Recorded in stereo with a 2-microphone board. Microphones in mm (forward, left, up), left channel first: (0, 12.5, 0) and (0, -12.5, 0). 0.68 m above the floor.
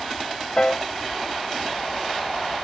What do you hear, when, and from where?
0.6 s a piano: 40° left (ahead or behind)